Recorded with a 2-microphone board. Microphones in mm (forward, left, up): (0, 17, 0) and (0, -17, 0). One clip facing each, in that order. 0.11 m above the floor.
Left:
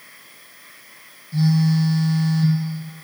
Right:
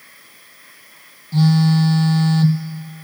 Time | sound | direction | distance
1.3 | a phone buzzing | 60° right (ahead or behind) | 0.6 m